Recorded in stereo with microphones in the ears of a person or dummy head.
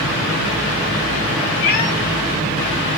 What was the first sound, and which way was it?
A cat meowing, 45° left (ahead or behind).